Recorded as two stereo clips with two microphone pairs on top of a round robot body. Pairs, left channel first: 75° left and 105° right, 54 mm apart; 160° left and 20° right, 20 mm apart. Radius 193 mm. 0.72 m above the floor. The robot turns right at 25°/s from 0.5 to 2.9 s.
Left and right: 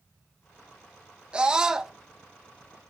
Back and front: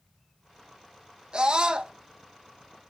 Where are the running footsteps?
I don't hear running footsteps.